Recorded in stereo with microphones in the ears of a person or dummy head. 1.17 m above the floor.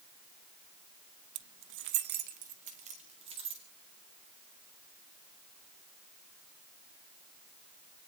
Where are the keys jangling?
70° right (ahead or behind), 0.8 m; by 3.6 s 25° right (ahead or behind), 2.5 m.